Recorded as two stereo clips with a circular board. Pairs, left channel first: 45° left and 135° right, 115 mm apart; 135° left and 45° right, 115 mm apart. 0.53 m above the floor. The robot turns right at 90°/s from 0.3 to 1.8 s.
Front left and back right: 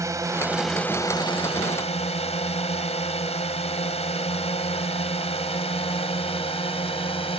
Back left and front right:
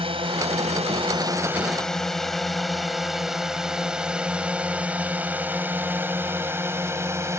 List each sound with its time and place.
0.0 s a drone: 75° right; by 7.4 s 20° left